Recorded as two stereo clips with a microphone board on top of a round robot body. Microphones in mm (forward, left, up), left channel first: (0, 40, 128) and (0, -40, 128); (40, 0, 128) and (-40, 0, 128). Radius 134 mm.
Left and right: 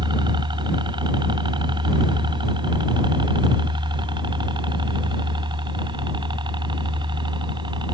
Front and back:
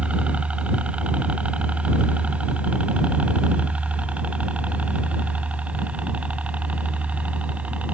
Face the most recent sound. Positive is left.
turn(degrees=-105)